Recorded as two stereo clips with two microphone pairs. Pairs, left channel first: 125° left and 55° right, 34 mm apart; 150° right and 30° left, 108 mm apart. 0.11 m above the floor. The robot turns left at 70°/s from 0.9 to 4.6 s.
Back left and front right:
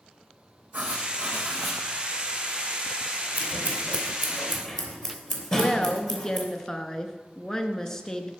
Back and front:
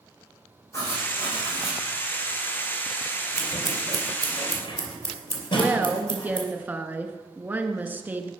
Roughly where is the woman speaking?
Left.